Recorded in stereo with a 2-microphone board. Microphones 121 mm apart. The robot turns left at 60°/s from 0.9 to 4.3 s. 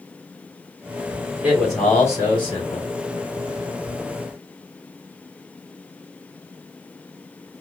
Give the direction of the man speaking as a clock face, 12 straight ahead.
6 o'clock.